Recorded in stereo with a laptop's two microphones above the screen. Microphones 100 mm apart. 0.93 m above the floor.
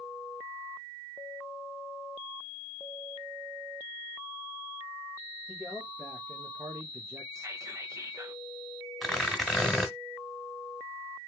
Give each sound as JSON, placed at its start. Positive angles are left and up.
{"t": 5.5, "sound": "a man speaking", "side_deg": 0, "distance_m": 1.2}
{"t": 7.3, "sound": "whispering", "side_deg": -30, "distance_m": 0.7}
{"t": 9.0, "sound": "tearing paper", "side_deg": 0, "distance_m": 1.3}